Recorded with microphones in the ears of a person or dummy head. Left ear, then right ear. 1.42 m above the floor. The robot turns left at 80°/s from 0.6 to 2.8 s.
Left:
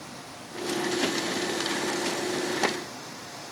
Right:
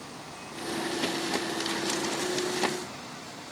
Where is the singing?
I don't hear singing.